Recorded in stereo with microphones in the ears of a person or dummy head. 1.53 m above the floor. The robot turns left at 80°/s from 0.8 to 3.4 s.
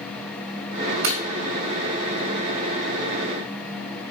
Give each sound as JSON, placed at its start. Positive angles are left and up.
{"t": 1.0, "sound": "breaking glass", "side_deg": -55, "distance_m": 2.0}